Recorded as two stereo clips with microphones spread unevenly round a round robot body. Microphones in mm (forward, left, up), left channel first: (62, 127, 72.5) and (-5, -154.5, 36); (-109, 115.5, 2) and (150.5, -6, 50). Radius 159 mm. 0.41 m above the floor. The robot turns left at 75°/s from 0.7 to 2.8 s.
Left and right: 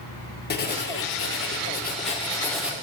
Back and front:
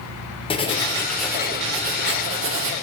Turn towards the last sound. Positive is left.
turn(degrees=-40)